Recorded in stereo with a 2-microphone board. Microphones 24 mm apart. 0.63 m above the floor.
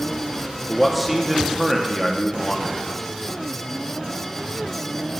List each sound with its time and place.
0.7 s a man speaking: 5° right (ahead or behind), 0.7 m